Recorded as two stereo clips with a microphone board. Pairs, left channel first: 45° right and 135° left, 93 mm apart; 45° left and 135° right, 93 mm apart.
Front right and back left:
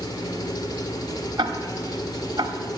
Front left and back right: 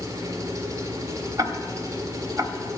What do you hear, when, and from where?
0.0 s an engine running: 85° right, 1.7 m
1.4 s ticking: 170° left, 1.1 m